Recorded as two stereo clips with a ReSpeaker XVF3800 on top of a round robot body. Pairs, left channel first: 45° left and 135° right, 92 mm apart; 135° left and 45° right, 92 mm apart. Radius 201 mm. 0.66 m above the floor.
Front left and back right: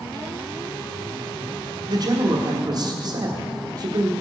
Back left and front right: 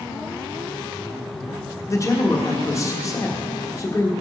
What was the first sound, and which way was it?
A man speaking, 170° right.